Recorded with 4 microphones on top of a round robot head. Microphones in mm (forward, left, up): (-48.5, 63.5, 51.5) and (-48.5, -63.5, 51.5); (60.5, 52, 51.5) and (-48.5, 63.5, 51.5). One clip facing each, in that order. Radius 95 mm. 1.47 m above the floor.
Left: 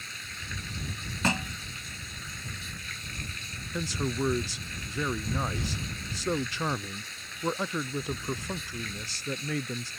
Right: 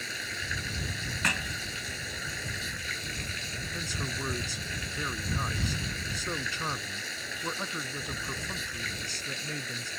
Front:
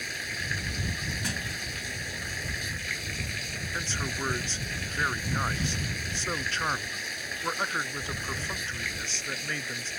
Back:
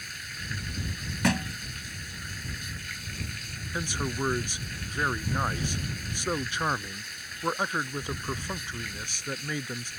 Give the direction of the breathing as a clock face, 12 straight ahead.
I don't hear breathing.